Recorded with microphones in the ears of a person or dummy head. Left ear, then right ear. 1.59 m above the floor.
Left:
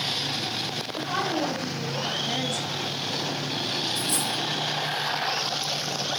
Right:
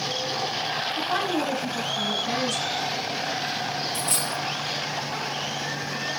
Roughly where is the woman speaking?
Right.